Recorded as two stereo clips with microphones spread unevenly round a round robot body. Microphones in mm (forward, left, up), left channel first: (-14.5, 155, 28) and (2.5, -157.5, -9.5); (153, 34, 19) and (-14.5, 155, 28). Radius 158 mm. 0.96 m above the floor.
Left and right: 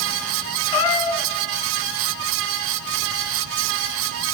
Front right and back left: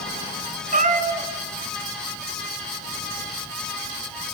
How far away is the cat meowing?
About 1.8 m.